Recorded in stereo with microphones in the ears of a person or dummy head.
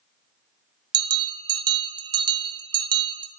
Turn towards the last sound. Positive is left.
turn(degrees=-30)  # may be behind; listen again after turning